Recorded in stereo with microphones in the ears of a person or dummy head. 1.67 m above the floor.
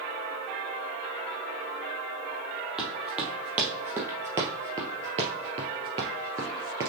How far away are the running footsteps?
About 3 m.